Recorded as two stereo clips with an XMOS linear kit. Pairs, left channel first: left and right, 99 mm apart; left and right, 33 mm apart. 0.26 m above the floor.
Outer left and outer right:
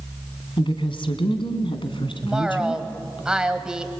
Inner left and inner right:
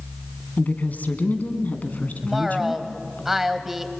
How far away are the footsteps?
No footsteps in this recording.